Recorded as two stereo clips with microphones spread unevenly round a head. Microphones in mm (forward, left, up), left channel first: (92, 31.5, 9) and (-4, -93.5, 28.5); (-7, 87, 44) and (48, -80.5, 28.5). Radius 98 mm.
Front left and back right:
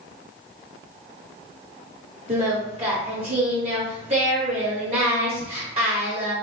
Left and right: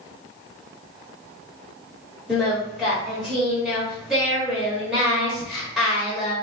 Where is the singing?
165° right, 1.1 m.